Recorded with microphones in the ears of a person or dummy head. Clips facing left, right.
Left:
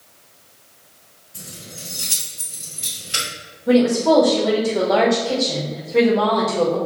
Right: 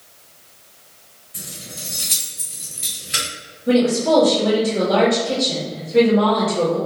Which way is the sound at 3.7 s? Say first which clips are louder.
Left 1 dB; centre (ahead or behind).